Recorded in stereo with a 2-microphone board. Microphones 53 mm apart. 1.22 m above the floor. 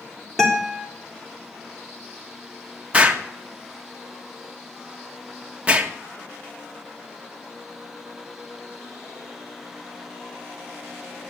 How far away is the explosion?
About 1.5 m.